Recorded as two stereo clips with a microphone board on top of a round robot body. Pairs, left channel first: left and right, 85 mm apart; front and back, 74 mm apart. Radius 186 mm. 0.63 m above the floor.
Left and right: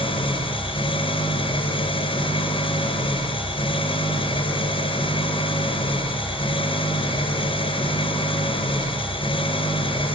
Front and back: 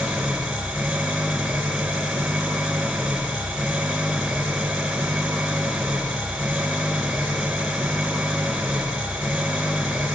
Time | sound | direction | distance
0.0 | an engine running | 95° left | 4 m